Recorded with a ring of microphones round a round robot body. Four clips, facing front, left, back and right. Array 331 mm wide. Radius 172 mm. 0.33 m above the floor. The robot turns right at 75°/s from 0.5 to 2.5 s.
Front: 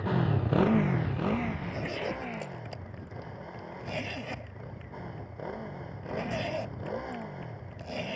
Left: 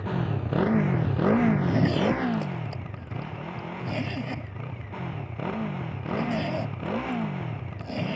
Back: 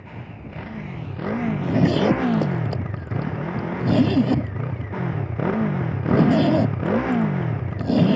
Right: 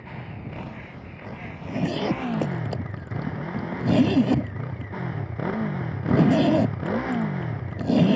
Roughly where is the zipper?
Behind left.